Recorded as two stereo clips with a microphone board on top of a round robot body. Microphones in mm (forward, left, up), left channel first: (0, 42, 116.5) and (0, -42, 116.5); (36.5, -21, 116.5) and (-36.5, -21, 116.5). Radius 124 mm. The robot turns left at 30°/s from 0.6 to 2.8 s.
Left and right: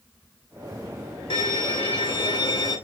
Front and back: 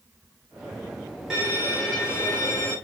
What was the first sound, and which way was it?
A violin, 100° left.